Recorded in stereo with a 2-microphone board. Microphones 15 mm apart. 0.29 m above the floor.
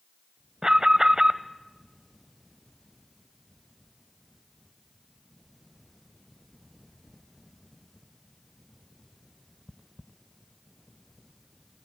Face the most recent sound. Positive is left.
turn(degrees=-45)  # may be behind; listen again after turning